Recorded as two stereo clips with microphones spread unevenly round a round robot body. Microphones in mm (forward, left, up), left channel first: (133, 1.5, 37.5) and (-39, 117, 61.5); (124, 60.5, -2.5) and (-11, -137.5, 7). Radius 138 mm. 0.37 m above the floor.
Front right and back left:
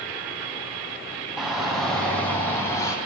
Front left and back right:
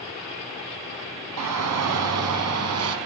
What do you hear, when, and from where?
1.4 s a shout: 125° right, 4 m; by 3.0 s 110° right, 4 m